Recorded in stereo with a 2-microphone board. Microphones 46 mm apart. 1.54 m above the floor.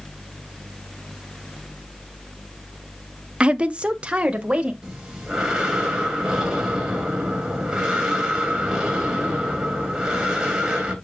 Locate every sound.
3.4 s a woman speaking: 25° right (ahead or behind), 0.5 m
4.8 s breathing: 15° right (ahead or behind), 3 m